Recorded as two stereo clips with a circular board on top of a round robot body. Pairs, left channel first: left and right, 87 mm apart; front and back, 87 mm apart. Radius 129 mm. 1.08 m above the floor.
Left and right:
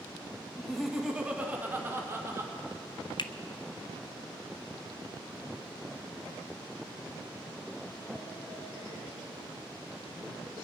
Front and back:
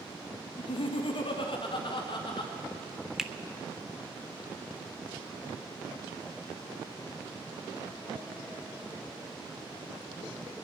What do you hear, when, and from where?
0.6 s laughter: 5° left, 1.5 m; by 2.5 s 30° right, 2 m
3.2 s a finger snap: 100° left, 0.8 m